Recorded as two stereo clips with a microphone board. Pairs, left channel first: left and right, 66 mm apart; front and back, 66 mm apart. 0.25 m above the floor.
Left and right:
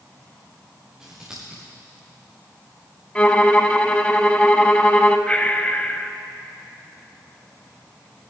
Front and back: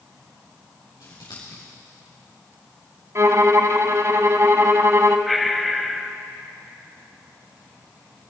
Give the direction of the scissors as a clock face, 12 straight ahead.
12 o'clock.